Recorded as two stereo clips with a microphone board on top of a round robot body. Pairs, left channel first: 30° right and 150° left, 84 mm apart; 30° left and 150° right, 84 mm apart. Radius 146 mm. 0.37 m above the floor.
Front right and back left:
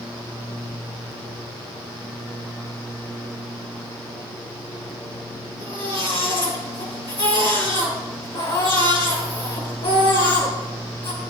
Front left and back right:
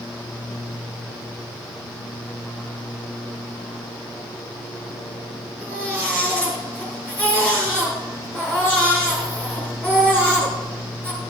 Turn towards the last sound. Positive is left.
turn(degrees=-45)